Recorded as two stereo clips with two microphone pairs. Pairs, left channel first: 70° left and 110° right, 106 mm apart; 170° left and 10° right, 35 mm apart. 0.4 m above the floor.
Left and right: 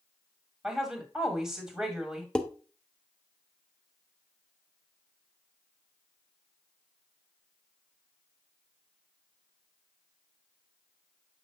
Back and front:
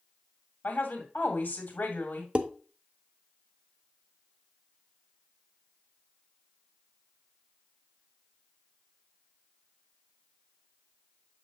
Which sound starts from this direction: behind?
A woman speaking, at 0.6 s.